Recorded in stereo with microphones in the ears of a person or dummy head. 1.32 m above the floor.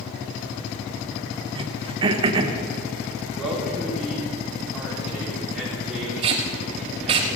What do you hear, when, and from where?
1.6 s throat clearing: 35° right (ahead or behind), 0.9 m
3.4 s a man speaking: 5° right (ahead or behind), 4 m
6.2 s tape being pulled: 25° right (ahead or behind), 1.1 m